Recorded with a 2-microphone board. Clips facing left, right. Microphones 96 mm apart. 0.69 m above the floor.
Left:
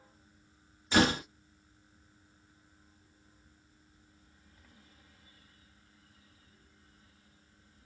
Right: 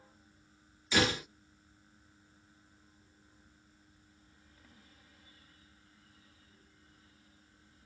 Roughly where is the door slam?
Left.